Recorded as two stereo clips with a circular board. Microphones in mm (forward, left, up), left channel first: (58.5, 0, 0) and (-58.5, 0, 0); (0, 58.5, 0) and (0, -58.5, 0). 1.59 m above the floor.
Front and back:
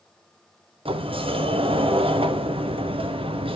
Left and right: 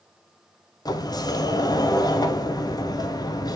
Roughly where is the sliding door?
Behind left.